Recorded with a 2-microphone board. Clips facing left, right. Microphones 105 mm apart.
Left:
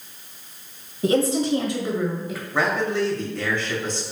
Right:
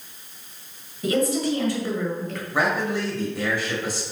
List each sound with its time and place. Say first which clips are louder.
1.0 s a woman speaking: left 2 dB; 30° left (ahead or behind), 1.5 m; by 2.4 s 5° left (ahead or behind), 1.6 m
2.5 s a man speaking: left 1 dB; 10° right (ahead or behind), 1.5 m